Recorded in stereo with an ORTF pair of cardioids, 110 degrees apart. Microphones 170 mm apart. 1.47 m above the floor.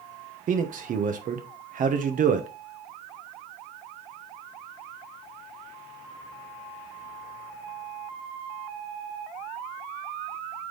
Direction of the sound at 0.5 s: 50° right.